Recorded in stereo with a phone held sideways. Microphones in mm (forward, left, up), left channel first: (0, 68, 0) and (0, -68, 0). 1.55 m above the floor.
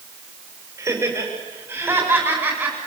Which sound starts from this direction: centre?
Laughter, at 0.8 s.